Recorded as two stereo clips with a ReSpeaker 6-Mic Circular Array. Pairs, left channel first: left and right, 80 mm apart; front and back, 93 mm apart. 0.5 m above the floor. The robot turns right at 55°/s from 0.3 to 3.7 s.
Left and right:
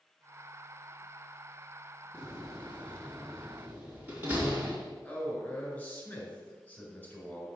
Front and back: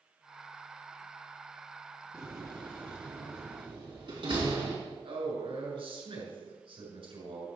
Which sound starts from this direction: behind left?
A door slam, at 2.1 s.